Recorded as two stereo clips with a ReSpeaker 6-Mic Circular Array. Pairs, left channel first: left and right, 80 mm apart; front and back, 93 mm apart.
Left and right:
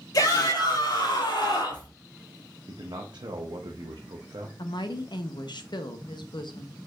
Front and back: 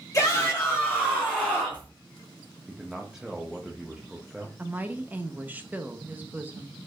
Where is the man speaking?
95° right, 0.6 m.